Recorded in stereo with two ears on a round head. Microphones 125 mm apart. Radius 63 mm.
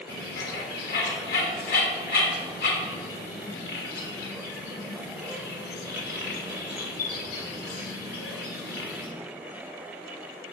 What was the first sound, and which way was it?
A bird, 75° left (ahead or behind).